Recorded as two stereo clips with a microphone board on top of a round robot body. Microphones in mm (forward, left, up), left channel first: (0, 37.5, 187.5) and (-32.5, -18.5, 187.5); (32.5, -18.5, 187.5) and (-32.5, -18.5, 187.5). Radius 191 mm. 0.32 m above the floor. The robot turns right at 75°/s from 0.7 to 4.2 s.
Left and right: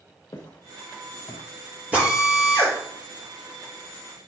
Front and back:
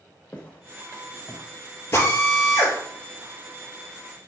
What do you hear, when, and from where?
0.3 s footsteps: 75° left, 1.8 m; by 1.4 s 85° left, 2 m
1.9 s a drill: 55° right, 4.5 m; by 2.8 s 10° left, 4.5 m